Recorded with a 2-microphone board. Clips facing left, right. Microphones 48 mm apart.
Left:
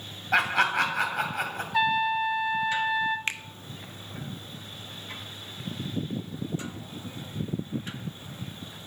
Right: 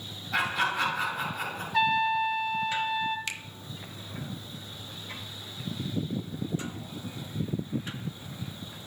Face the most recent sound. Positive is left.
turn(degrees=35)  # may be behind; listen again after turning